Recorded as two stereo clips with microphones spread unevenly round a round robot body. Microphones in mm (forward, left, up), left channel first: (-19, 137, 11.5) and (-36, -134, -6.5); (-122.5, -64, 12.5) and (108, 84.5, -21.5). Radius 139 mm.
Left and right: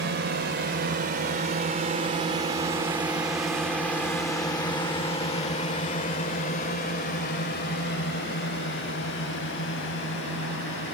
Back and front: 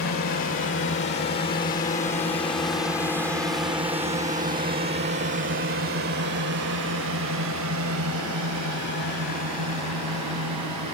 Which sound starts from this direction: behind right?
A drone, at 0.0 s.